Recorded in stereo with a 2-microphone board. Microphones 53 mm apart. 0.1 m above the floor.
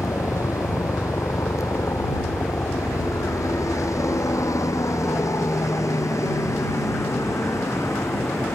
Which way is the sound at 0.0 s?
70° left (ahead or behind).